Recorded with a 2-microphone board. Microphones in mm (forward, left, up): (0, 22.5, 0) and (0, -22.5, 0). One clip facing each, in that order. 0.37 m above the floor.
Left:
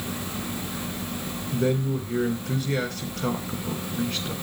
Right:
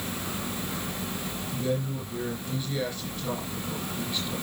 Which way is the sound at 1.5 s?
75° left (ahead or behind).